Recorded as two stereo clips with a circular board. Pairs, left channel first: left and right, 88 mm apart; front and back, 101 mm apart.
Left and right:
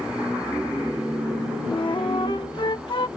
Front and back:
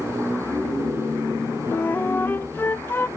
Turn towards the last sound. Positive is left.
turn(degrees=70)